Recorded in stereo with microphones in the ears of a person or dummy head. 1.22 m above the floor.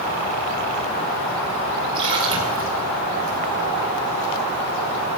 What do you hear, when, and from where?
1.9 s a splash: 30° right (ahead or behind), 4.5 m